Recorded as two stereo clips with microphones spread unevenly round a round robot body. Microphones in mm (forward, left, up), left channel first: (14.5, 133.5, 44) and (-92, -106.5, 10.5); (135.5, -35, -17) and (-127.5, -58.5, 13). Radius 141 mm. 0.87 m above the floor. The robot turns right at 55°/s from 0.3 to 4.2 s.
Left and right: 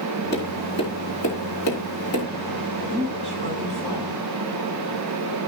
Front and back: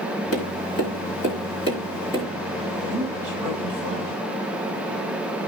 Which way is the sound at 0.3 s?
15° right.